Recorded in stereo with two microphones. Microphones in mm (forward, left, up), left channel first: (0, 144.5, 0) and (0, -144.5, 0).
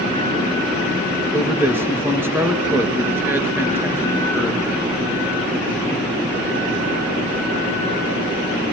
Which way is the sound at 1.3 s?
5° right (ahead or behind).